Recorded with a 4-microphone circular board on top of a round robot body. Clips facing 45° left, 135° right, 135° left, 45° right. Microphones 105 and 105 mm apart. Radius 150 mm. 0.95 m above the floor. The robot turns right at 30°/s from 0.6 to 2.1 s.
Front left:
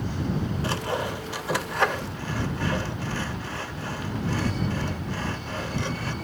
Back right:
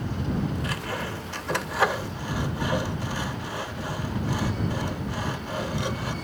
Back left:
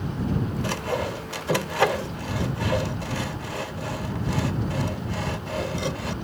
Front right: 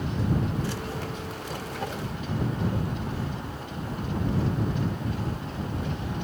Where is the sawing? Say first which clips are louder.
Front left 4 dB, back left 5 dB; 105° left; by 6.1 s 150° left.